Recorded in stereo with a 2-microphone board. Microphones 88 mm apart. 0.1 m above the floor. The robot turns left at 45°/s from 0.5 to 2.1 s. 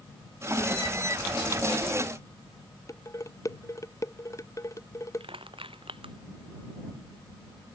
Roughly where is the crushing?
Right.